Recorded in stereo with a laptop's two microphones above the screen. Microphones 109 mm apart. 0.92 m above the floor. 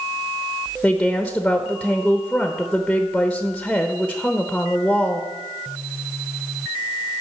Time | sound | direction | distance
0.8 | a woman speaking | 5° left (ahead or behind) | 0.9 m